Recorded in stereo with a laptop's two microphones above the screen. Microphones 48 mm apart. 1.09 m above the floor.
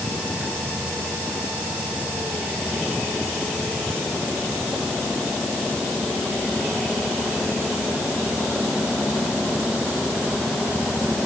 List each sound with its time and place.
Only background noise.